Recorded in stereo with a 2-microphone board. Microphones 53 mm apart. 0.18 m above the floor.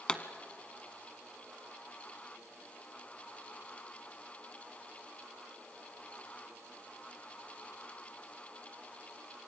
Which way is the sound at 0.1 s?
15° left (ahead or behind).